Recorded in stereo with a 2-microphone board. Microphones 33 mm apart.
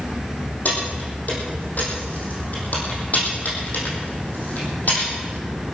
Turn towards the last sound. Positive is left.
turn(degrees=50)  # may be behind; listen again after turning